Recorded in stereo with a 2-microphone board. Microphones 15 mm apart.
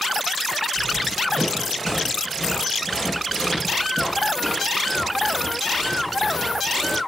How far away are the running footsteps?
About 9 m.